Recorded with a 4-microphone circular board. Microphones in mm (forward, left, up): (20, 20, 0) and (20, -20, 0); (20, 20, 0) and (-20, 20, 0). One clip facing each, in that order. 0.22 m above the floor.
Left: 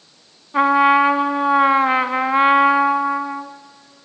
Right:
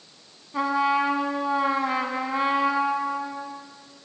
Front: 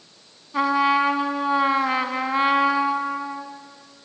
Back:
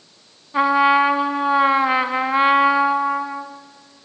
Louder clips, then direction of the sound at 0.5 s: Left 9 dB, back 4 dB; 115° left.